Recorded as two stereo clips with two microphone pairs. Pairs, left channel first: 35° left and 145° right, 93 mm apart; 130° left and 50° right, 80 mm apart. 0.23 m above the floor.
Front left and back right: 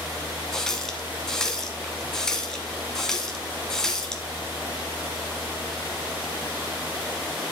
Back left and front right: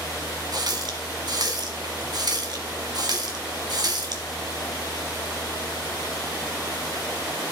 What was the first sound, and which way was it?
A running tap, 45° right.